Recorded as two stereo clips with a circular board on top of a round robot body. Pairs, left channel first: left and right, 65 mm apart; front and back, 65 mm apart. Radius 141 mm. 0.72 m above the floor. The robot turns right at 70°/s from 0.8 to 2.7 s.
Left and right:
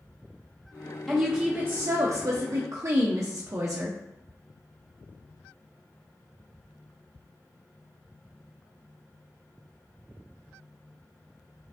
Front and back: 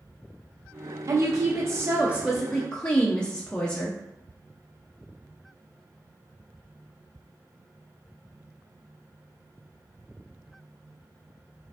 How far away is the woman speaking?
About 0.6 m.